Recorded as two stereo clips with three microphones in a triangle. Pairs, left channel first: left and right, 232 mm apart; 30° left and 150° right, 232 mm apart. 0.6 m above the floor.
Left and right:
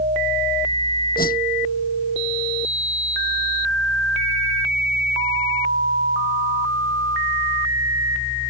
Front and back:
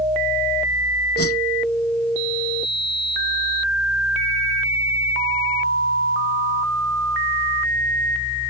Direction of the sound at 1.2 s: 40° left.